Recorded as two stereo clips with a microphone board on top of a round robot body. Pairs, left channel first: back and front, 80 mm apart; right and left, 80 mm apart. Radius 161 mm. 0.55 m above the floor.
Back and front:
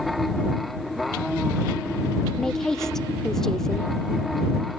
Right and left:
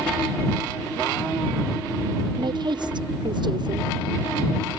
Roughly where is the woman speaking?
Left.